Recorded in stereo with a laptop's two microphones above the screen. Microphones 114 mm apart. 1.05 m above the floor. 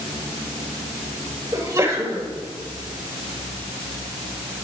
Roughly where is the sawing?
I don't hear sawing.